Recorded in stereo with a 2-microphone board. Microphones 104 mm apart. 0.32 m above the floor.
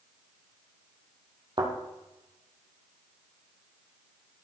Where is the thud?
45° right (ahead or behind), 3 m.